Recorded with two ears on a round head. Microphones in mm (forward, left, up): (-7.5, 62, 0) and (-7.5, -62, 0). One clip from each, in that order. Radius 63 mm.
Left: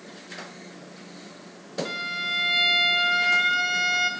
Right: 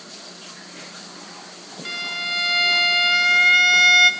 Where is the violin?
40° right (ahead or behind), 0.5 m.